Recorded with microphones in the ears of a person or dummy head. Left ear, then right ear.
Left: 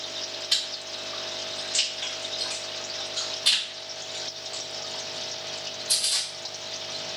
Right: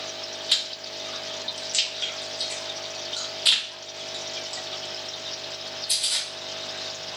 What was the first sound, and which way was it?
Chewing, 35° right (ahead or behind).